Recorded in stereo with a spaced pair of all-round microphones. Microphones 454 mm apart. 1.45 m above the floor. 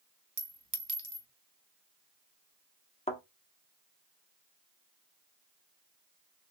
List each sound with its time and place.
0.4 s a clink: 40° right (ahead or behind), 1.0 m
3.1 s a thud: 15° left (ahead or behind), 1.1 m